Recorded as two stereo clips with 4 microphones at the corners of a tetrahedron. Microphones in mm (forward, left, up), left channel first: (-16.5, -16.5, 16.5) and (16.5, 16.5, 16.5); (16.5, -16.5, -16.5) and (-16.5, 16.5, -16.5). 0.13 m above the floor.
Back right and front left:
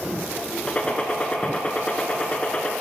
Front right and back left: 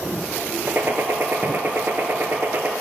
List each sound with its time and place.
0.7 s a gunshot: 165° left, 0.5 m